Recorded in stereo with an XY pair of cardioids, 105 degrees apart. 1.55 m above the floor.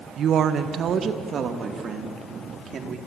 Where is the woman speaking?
60° right, 1.4 m; by 3.0 s 50° right, 4.5 m.